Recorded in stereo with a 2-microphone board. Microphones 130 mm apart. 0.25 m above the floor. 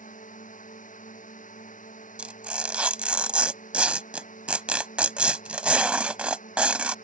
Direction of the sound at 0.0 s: 80° left.